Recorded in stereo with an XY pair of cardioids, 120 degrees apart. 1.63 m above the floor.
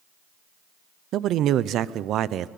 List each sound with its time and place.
1.1 s a man speaking: 65° right, 0.7 m